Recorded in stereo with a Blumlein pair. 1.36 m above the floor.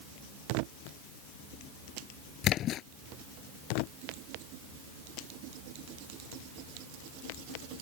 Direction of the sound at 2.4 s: 30° left.